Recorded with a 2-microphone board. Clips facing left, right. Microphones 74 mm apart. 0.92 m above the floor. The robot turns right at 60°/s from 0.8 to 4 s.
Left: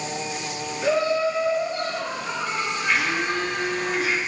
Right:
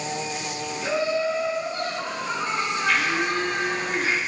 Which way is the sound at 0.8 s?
70° left.